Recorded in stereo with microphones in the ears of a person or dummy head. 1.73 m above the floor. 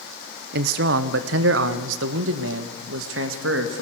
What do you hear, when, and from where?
0.5 s a man speaking: 55° right (ahead or behind), 0.9 m; by 3.8 s 80° right, 2.5 m